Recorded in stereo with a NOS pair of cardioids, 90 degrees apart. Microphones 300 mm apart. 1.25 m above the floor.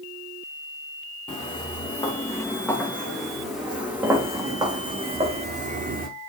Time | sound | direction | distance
1.3 | footsteps | 20° left | 4.5 m